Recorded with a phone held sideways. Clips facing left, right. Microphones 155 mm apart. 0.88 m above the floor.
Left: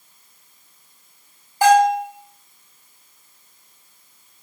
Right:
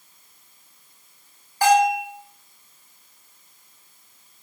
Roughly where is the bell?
Left.